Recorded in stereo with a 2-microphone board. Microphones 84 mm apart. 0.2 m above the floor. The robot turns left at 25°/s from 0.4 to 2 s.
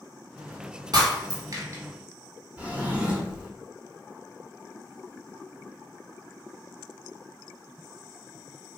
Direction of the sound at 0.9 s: 65° right (ahead or behind).